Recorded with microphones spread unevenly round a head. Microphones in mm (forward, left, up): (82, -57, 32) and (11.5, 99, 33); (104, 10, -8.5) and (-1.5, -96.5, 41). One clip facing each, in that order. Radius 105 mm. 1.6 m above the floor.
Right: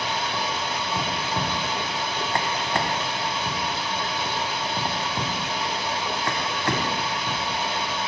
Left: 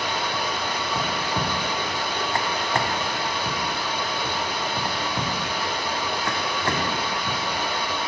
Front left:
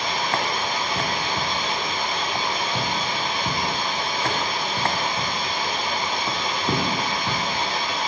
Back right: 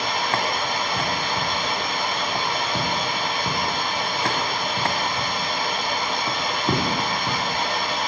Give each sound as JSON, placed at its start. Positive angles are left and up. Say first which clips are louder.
{"t": 0.0, "sound": "running water", "louder": "left 1 dB, back right 1 dB", "azimuth_deg": -140, "distance_m": 1.7}